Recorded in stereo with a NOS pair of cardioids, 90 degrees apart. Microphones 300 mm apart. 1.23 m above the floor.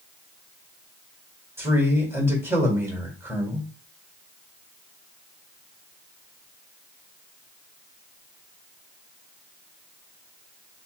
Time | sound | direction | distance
1.6 | a man speaking | 10° right | 1.9 m